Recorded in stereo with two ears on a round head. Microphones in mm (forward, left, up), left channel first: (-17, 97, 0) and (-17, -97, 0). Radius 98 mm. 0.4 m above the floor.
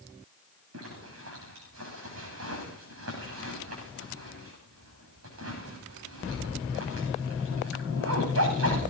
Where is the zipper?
65° right (ahead or behind), 9.5 m.